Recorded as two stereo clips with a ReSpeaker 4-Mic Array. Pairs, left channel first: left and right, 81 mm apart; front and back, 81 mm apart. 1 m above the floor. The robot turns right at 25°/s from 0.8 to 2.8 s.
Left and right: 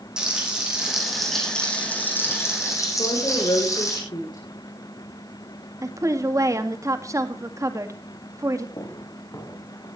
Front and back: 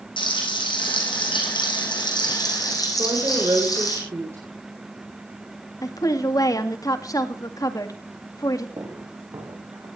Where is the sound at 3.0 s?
120° left, 4 m.